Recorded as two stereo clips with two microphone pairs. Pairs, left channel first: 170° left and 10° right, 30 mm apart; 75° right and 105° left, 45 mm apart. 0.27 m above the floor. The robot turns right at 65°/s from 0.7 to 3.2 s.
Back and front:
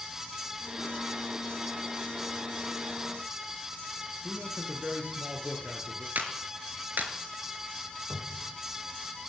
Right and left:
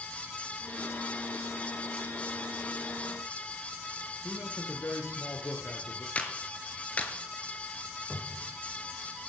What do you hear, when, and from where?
4.2 s a man speaking: 55° right, 6 m
6.2 s a clap: 15° right, 4.5 m
8.1 s a cupboard door: 15° left, 9 m